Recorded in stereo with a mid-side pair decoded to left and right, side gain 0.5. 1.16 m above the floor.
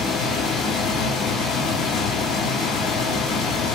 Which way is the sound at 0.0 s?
70° left.